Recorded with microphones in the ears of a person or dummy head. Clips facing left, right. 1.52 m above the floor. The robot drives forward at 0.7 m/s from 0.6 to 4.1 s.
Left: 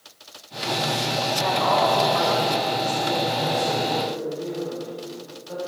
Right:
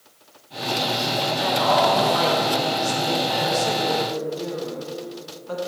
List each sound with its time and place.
1.4 s a woman speaking: 35° right (ahead or behind), 2.5 m; by 5.6 s 75° right (ahead or behind), 1.4 m